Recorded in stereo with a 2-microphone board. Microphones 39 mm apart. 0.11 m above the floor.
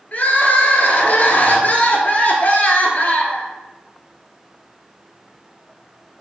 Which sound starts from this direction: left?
Crying, at 0.1 s.